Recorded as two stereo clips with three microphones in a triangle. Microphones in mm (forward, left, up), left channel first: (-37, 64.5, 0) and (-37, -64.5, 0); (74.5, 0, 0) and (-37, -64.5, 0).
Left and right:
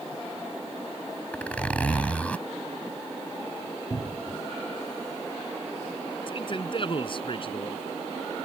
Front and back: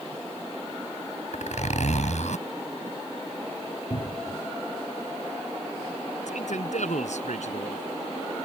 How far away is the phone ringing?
I don't hear a phone ringing.